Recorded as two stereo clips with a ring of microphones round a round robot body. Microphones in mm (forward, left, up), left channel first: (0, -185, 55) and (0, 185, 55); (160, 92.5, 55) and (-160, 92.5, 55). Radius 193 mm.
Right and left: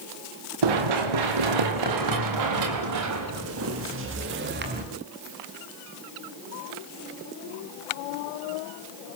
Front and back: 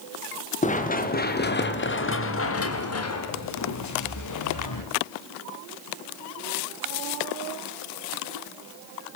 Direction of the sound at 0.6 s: 70° left.